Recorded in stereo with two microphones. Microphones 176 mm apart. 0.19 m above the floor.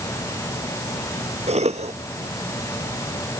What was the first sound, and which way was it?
A cough, 40° right (ahead or behind).